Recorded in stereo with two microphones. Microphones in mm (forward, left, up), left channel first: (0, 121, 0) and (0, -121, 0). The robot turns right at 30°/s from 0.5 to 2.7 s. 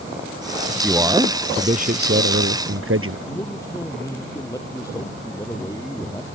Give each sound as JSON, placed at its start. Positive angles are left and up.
{"t": 0.8, "sound": "a man speaking", "azimuth_deg": -175}
{"t": 3.3, "sound": "a man speaking", "side_deg": 15}